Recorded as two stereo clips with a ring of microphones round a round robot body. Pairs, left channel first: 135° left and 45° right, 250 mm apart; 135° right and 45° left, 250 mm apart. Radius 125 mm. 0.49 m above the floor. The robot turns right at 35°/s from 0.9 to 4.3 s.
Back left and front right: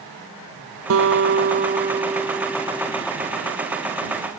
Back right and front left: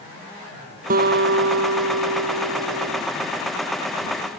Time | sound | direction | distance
0.9 | a guitar | 10° right | ?